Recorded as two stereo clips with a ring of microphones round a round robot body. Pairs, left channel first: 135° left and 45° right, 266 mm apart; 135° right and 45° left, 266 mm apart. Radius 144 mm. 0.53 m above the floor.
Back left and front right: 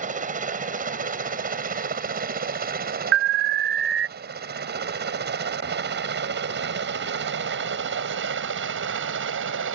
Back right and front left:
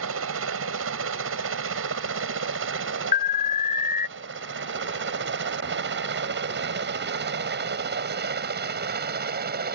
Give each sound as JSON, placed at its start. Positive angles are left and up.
{"t": 0.0, "sound": "a helicopter", "azimuth_deg": 15}
{"t": 3.1, "sound": "an alarm", "azimuth_deg": -80}